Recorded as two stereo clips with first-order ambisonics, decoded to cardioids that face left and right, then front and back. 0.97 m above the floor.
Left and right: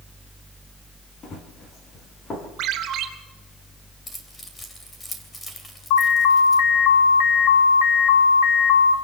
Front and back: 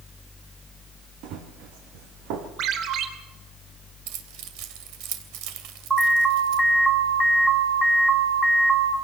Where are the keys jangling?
170° left, 3 m.